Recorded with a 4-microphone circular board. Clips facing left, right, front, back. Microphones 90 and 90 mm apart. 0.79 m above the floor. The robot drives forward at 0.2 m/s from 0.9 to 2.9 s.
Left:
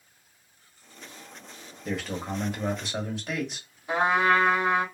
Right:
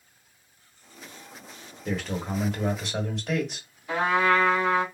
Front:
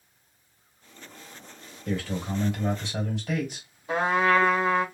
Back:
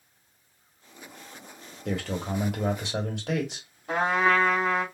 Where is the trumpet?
155° left, 1.6 m.